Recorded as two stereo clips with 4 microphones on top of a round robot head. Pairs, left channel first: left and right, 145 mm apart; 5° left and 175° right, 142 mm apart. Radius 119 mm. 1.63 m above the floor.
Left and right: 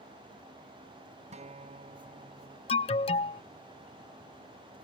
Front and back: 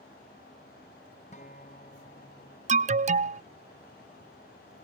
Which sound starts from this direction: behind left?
An alarm, at 2.7 s.